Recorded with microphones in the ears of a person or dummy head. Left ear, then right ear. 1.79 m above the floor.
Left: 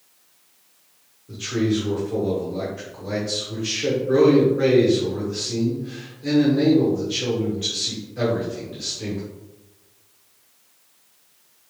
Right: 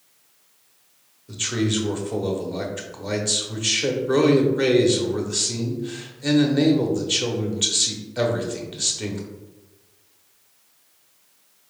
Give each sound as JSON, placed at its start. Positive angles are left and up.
{"t": 1.3, "sound": "a man speaking", "side_deg": -35, "distance_m": 0.8}